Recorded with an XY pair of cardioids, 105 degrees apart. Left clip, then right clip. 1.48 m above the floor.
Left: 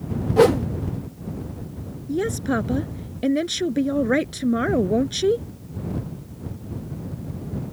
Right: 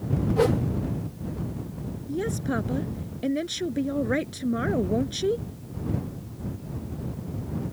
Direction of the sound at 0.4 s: 50° left.